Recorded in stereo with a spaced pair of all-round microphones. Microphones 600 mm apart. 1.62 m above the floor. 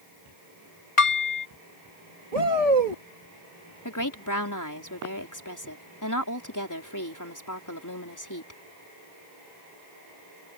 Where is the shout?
70° right (ahead or behind).